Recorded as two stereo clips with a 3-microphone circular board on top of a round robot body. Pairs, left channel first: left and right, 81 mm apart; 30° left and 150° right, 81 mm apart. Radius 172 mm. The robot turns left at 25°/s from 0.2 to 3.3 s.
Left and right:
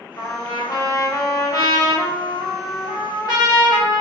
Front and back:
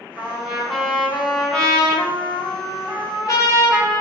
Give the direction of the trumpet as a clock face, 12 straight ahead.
7 o'clock.